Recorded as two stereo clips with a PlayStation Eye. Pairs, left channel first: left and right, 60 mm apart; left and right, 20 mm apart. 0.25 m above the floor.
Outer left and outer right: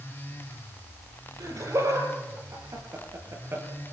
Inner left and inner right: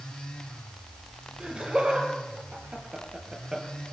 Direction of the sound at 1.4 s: 60° right (ahead or behind).